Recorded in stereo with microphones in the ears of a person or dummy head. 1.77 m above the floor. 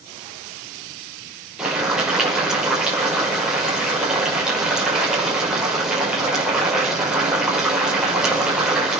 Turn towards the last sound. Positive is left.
turn(degrees=-5)  # may be behind; listen again after turning